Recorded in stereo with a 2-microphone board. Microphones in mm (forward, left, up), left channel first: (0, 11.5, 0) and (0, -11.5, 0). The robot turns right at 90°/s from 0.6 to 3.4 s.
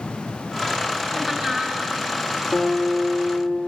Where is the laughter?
165° right, 1.8 m; by 1.8 s 105° right, 1.8 m.